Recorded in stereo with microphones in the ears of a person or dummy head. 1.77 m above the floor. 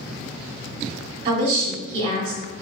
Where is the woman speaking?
40° right (ahead or behind), 0.8 m.